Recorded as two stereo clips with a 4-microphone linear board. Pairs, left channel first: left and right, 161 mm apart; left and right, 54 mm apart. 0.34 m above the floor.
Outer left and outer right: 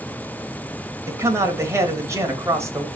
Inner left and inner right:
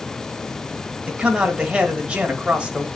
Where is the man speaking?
20° right (ahead or behind), 1.4 m.